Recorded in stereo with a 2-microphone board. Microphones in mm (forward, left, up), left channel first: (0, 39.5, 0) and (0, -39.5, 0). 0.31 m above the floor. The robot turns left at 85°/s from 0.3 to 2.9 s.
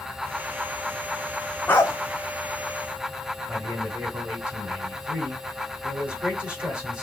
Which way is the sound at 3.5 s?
10° right (ahead or behind).